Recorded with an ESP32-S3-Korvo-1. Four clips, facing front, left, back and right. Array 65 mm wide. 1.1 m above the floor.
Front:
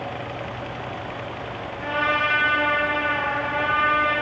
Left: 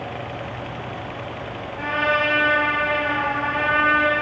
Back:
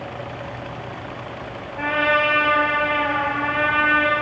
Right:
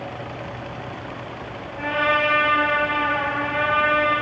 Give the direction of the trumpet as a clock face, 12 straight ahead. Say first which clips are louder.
Right 1 dB, back 4 dB; 6 o'clock.